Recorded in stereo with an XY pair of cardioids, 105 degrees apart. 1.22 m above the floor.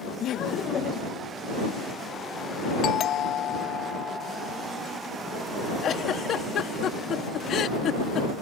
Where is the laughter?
70° left; by 1.2 s 40° left.